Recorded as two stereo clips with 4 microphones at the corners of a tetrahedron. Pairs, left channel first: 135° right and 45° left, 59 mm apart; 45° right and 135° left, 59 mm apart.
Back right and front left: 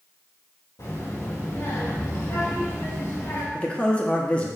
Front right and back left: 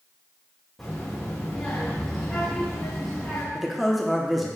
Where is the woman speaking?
135° right, 0.9 m.